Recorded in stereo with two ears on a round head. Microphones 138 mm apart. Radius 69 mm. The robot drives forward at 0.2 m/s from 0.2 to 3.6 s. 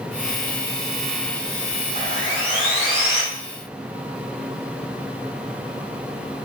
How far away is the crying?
I don't hear crying.